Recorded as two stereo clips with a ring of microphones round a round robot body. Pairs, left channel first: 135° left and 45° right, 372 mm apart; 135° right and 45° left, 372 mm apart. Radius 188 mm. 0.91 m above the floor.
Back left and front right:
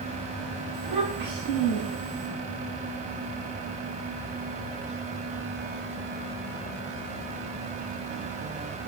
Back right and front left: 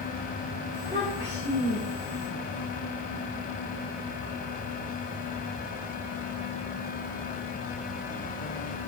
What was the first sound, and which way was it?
A child speaking, 65° right.